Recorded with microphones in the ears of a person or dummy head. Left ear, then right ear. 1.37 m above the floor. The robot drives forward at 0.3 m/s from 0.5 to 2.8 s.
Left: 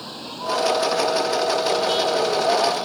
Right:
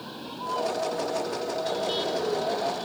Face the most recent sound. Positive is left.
turn(degrees=5)  # may be behind; listen again after turning